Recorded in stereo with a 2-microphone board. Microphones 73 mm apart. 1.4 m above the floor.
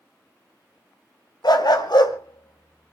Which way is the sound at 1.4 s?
70° left (ahead or behind).